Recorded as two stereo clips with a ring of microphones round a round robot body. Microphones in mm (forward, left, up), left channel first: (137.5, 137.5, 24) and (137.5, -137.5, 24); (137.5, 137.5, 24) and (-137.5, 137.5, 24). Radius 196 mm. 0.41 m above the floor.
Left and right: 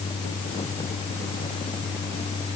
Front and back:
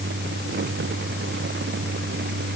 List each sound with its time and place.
Only background noise.